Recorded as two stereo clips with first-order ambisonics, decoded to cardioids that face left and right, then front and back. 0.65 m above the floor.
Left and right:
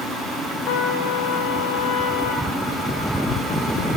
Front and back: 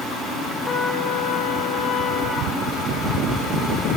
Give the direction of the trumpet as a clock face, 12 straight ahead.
10 o'clock.